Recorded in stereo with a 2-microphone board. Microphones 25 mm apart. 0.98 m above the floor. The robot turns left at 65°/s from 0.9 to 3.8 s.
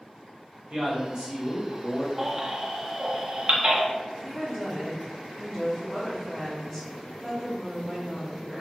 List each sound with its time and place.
0.7 s a man speaking: 120° right, 1.0 m; by 2.1 s 160° left, 1.0 m
2.2 s a baby crying: 15° right (ahead or behind), 0.5 m; by 3.9 s 45° right (ahead or behind), 0.5 m
4.2 s a woman speaking: 10° left (ahead or behind), 1.2 m